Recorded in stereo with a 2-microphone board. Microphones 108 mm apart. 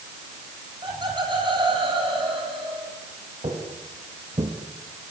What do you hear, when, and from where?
0.8 s laughter: 40° right (ahead or behind), 10 m; by 2.9 s 50° right (ahead or behind), 12 m
3.4 s footsteps: 55° right (ahead or behind), 4.5 m; by 4.5 s 45° right (ahead or behind), 3 m